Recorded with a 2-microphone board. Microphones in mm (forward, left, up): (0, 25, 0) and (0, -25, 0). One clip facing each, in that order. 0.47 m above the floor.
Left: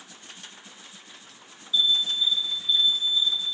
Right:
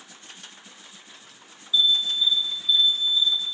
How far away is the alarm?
About 2 m.